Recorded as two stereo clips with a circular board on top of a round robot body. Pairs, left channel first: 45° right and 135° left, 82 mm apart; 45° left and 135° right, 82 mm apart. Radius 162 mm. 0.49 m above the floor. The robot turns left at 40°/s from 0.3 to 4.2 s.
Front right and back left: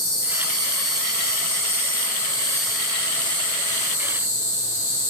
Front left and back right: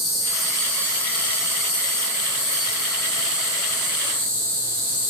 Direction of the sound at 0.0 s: 140° left.